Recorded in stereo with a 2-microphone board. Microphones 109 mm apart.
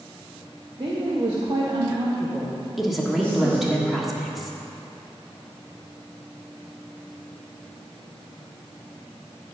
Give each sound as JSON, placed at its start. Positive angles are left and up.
{"t": 0.8, "sound": "a woman speaking", "side_deg": -50, "distance_m": 1.4}
{"t": 2.8, "sound": "a woman speaking", "side_deg": 0, "distance_m": 1.3}